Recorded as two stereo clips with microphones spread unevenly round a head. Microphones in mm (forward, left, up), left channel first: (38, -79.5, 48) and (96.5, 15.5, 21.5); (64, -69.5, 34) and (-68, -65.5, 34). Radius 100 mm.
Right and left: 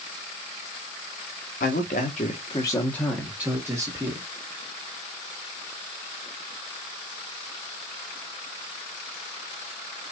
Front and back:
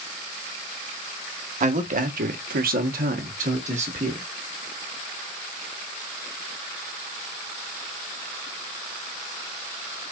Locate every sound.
1.6 s a man speaking: 155° right, 1.2 m; by 4.2 s 120° left, 1.5 m